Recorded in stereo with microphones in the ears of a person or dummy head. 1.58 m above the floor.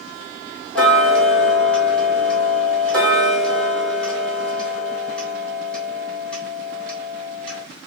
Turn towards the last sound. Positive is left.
turn(degrees=5)  # may be behind; listen again after turning